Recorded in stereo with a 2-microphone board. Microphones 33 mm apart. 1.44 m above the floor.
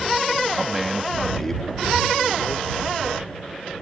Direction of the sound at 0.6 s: 10° right (ahead or behind).